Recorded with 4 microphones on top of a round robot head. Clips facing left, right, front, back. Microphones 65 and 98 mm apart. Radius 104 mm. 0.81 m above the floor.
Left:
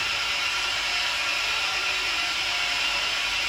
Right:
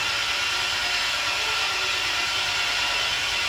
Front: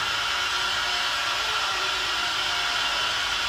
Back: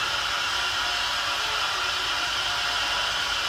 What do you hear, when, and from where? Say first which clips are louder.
0.0 s an engine running: right 2 dB, even; 85° right, 2 m